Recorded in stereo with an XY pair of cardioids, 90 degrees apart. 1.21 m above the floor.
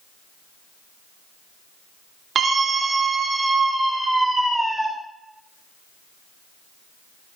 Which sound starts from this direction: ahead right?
A scream, at 2.4 s.